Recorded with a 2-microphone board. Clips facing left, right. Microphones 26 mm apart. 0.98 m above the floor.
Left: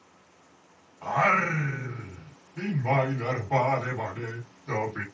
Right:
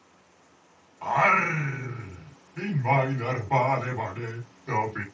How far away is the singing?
About 1.5 m.